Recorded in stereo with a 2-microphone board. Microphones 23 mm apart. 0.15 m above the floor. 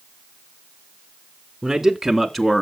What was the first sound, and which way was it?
A man speaking, 20° right (ahead or behind).